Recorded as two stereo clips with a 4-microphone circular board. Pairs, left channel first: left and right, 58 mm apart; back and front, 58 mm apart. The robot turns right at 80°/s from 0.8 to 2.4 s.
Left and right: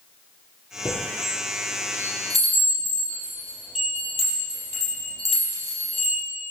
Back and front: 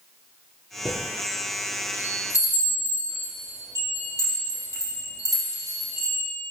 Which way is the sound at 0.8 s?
60° left.